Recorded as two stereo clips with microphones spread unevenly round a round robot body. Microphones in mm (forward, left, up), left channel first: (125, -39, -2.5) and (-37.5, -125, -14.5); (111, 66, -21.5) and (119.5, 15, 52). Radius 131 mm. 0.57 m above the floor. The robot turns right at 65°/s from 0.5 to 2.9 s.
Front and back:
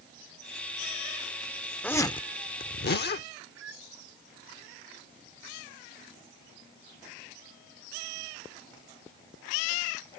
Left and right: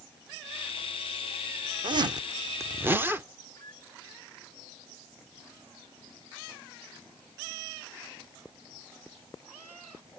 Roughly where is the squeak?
Behind.